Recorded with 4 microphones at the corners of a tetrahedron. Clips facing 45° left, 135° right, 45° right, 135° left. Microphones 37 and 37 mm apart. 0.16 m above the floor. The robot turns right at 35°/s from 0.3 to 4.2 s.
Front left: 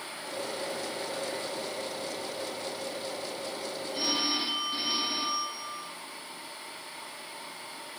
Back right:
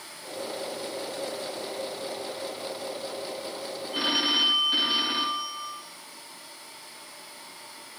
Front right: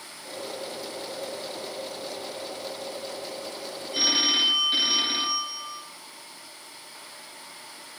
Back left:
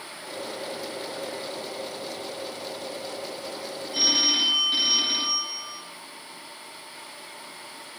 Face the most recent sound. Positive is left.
turn(degrees=-115)